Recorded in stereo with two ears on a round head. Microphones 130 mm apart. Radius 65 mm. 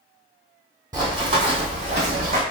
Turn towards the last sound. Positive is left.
turn(degrees=-55)  # may be behind; listen again after turning